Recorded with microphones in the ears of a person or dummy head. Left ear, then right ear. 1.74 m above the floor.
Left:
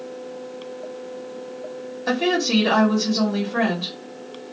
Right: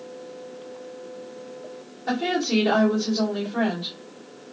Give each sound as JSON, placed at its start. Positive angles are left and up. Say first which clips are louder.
{"t": 2.1, "sound": "a woman speaking", "louder": "left 4 dB", "side_deg": 60, "distance_m": 1.2}